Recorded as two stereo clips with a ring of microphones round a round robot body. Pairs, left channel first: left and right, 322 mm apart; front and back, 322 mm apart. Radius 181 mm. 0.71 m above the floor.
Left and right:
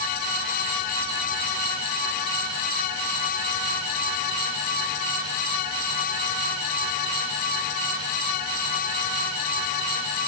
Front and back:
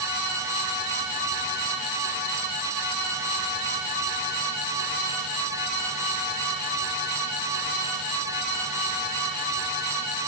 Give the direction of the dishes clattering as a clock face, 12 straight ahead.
I don't hear dishes clattering.